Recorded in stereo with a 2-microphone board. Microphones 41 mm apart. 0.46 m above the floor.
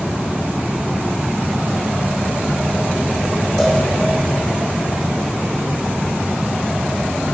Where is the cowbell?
Centre (ahead or behind), 6 m.